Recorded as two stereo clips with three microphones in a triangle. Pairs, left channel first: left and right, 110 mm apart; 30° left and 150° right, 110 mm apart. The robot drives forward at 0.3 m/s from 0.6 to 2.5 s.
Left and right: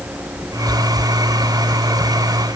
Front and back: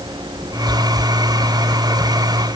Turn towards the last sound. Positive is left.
No sound to turn to.